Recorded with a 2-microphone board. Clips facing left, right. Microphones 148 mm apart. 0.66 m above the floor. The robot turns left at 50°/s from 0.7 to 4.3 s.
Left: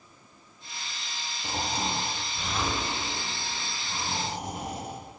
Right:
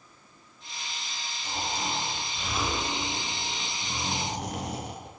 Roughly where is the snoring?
Ahead left.